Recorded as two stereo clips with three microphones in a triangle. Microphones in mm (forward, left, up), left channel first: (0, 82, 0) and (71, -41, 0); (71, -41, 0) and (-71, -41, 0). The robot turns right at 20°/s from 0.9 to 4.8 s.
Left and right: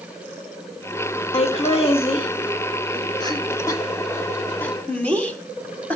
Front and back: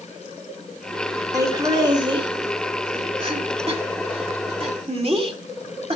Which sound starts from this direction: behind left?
Laughter, at 1.3 s.